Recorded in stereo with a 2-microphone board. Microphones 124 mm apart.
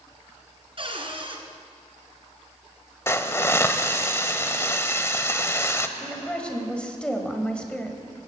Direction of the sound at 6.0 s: 10° left (ahead or behind).